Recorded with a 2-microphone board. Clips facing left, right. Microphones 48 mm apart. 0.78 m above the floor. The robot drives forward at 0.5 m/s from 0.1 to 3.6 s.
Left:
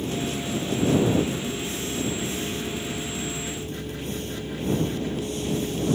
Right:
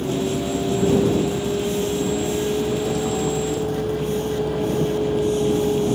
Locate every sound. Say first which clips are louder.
0.0 s a vehicle: right 6 dB; 80° right; by 6.0 s 75° right (ahead or behind)